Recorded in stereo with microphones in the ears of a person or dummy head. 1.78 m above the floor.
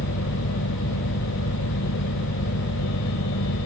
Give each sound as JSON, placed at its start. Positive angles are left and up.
{"t": 0.0, "sound": "a fan", "side_deg": 75}